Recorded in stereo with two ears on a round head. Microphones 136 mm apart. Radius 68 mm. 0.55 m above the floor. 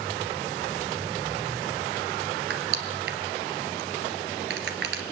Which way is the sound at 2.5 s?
75° right (ahead or behind).